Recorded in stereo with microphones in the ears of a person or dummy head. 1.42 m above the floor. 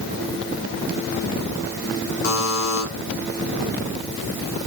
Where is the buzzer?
90° left, 3.5 m.